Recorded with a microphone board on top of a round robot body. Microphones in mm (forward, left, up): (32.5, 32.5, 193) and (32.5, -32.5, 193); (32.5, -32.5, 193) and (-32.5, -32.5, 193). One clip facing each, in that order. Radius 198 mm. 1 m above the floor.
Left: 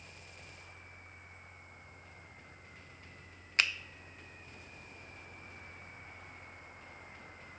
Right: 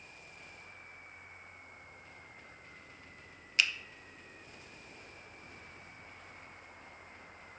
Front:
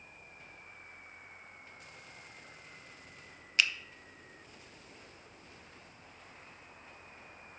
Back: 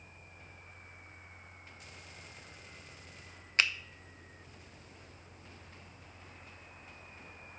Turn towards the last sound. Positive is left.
turn(degrees=135)